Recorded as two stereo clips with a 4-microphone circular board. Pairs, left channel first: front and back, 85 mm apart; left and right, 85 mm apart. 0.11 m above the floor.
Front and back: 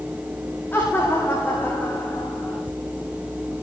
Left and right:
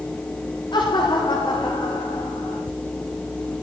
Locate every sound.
0.7 s laughter: 60° left, 8.5 m; by 2.6 s 65° left, 7.5 m